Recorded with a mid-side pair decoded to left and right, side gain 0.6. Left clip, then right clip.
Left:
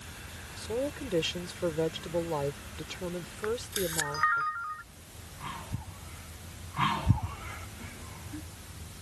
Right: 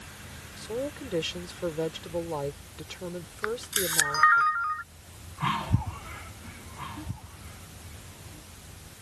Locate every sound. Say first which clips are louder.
0.6 s a woman speaking: even; 5° left
3.4 s a camera shutter: right 3 dB; 40° right